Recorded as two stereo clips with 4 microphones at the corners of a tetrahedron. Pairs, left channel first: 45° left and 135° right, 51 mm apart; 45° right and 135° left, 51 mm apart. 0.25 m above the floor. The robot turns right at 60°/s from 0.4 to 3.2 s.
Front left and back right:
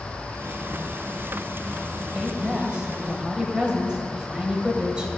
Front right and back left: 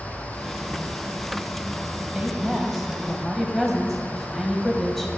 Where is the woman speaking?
Straight behind, 0.9 m; by 5.1 s 115° right, 0.9 m.